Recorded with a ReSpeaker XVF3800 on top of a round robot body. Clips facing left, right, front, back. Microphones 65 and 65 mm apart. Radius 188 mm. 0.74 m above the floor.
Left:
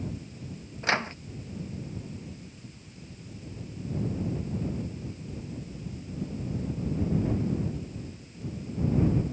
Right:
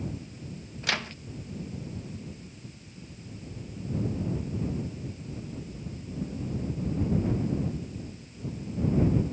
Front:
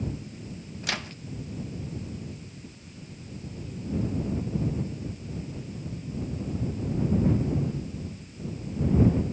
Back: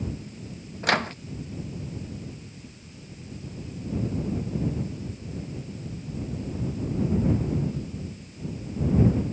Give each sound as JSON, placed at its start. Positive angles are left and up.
{"t": 0.8, "sound": "a microwave", "azimuth_deg": 145}